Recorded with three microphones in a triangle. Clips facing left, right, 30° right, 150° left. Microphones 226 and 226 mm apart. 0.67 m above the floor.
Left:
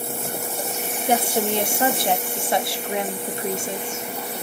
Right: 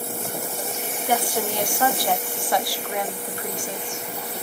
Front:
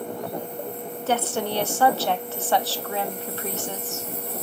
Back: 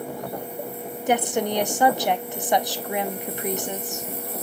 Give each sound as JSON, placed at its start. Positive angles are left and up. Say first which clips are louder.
{"t": 1.1, "sound": "a woman speaking", "louder": "left 3 dB, back 3 dB", "azimuth_deg": 100, "distance_m": 0.8}